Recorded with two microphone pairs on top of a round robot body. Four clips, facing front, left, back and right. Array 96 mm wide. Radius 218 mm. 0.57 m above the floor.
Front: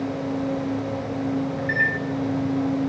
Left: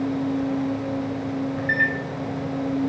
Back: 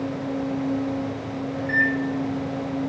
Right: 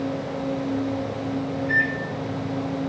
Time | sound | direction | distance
1.6 | a microwave | 75° left | 2.5 m